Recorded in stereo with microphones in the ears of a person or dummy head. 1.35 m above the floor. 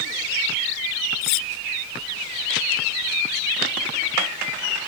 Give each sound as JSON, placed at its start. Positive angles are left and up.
{"t": 1.2, "sound": "cutlery clinking", "side_deg": 60, "distance_m": 0.7}